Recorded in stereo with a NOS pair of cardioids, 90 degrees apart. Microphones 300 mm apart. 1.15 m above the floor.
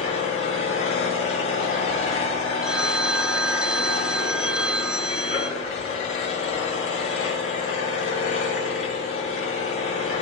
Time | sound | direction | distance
0.0 | an engine running | 45° left | 7.5 m
2.6 | a phone ringing | 5° right | 0.7 m